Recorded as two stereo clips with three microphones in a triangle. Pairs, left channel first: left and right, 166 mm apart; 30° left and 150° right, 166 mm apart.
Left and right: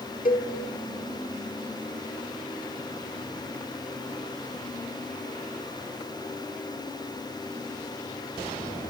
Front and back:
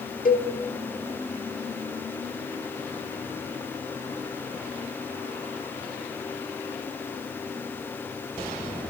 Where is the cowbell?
60° left, 0.9 m.